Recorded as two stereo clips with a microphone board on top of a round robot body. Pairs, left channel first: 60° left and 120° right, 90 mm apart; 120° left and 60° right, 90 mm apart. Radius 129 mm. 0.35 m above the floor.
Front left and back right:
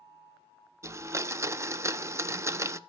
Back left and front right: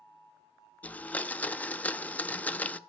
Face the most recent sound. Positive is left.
turn(degrees=-170)